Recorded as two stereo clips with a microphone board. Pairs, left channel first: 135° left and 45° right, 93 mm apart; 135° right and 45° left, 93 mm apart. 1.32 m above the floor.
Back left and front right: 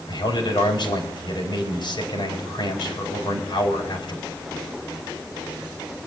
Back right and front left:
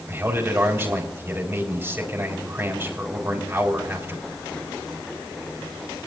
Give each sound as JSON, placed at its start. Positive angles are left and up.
{"t": 0.1, "sound": "a man speaking", "azimuth_deg": 110, "distance_m": 4.5}